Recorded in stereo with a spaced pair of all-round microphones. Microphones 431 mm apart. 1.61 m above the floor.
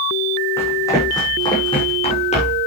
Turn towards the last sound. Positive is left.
turn(degrees=15)  # may be behind; listen again after turning